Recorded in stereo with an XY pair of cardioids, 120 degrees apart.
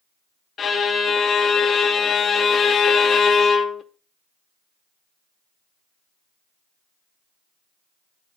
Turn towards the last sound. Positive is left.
turn(degrees=45)